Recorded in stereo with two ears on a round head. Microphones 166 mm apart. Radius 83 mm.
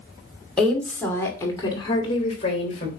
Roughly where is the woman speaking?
Centre.